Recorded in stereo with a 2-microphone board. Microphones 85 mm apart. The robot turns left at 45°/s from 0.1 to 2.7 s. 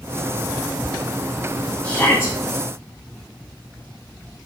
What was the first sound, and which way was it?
A shout, 15° left (ahead or behind).